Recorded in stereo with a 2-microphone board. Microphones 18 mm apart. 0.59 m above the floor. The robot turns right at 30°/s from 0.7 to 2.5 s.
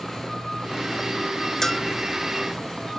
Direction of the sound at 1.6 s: 15° left (ahead or behind).